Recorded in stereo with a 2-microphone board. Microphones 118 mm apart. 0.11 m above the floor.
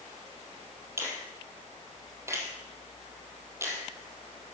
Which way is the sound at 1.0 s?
20° right (ahead or behind).